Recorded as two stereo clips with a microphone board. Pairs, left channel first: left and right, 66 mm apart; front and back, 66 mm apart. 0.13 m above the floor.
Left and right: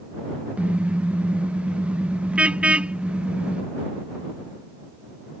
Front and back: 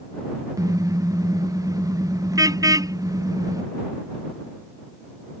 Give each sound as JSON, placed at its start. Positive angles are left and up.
{"t": 0.6, "sound": "a car horn", "azimuth_deg": -160}